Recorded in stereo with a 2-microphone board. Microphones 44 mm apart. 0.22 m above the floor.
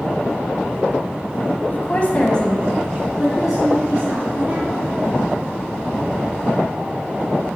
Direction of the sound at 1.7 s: 40° left (ahead or behind).